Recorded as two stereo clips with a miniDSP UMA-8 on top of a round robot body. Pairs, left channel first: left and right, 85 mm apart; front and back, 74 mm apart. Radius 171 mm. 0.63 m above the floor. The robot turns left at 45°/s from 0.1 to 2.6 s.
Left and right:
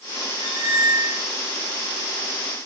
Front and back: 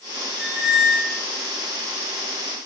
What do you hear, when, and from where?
0.4 s a squeak: 100° right, 2.5 m; by 1.2 s 135° right, 2.5 m